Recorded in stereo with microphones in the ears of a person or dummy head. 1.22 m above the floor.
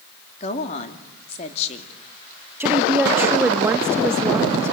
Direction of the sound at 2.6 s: 5° right (ahead or behind).